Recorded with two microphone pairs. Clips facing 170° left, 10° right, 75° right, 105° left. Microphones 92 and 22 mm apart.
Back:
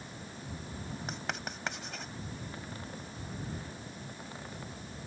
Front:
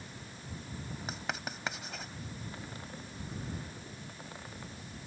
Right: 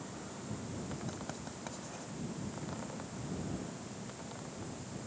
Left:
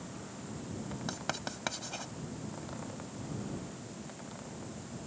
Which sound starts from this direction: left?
Writing, at 1.1 s.